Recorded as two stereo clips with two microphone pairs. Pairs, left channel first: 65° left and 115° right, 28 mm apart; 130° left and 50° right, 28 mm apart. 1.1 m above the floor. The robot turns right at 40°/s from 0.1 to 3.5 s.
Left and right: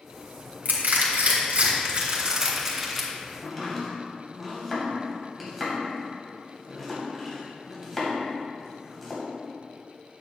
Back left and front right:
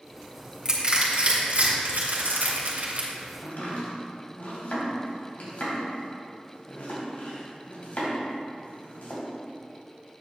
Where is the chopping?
145° left, 3 m; by 9.2 s 150° left, 3 m.